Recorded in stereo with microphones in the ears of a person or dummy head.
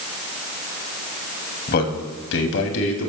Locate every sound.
1.7 s a man speaking: 55° left (ahead or behind), 2.5 m; by 3.1 s 85° left, 2.5 m